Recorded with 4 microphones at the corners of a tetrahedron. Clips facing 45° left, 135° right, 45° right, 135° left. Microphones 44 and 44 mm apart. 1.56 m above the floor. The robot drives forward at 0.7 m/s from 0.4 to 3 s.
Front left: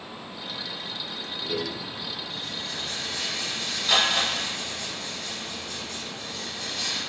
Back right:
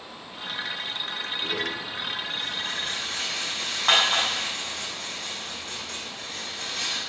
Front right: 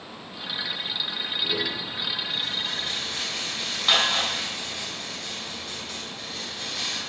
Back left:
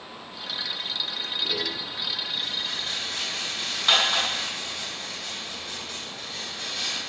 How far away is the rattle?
About 6 m.